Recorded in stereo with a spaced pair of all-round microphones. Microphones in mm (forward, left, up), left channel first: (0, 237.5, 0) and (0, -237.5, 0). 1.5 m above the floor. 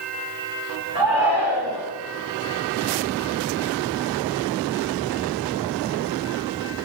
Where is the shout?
65° right (ahead or behind), 5.5 m.